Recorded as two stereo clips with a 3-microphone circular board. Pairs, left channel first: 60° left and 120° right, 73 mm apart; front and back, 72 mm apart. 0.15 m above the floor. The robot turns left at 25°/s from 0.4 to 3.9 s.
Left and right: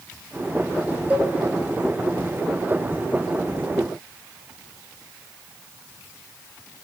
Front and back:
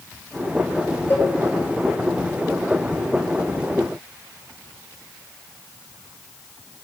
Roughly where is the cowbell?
Ahead right.